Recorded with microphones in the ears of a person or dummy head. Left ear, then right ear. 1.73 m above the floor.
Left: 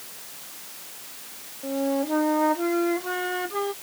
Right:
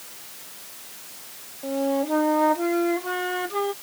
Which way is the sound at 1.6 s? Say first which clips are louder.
Right 2 dB; 10° right (ahead or behind).